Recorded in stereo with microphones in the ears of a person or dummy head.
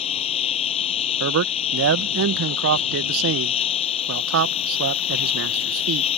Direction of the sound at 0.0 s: 35° left (ahead or behind).